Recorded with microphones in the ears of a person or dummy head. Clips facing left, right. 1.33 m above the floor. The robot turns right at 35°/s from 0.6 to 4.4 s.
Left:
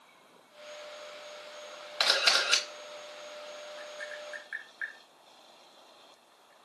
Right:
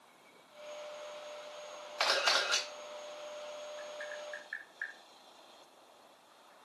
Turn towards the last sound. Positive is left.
turn(degrees=50)  # may be behind; listen again after turning